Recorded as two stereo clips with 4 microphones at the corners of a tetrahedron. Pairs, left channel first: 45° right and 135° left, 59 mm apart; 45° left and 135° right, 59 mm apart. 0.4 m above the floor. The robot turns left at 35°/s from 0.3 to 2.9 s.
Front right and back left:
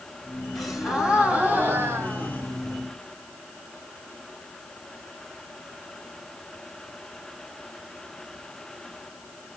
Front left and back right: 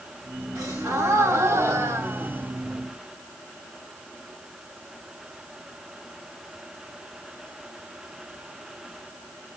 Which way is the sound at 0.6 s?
130° right.